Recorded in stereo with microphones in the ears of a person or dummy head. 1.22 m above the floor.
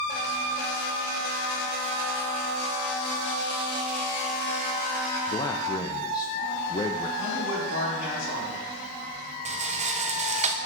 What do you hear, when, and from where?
5.3 s a man speaking: 25° left (ahead or behind), 0.5 m
7.2 s a man speaking: 70° left (ahead or behind), 4.5 m
9.4 s a rattle: 35° right (ahead or behind), 0.6 m